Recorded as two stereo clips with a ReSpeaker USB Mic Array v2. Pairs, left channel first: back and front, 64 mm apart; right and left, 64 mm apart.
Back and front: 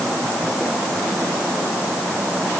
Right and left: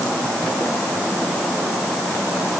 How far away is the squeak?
I don't hear a squeak.